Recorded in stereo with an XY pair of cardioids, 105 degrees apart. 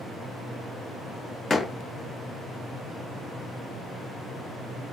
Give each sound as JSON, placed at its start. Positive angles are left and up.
{"t": 1.5, "sound": "a door slam", "azimuth_deg": 30, "distance_m": 0.7}